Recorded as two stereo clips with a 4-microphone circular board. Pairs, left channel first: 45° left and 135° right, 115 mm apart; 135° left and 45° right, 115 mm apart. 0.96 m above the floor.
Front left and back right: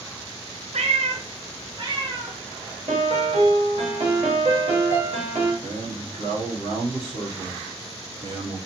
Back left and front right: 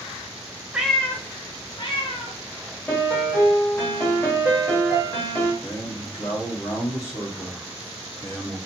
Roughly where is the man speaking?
Behind.